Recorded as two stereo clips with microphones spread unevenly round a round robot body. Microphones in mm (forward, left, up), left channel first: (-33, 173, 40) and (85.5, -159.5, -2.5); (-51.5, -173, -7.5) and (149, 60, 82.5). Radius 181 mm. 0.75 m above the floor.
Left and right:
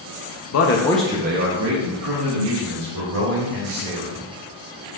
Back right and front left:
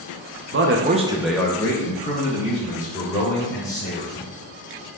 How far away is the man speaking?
About 0.6 m.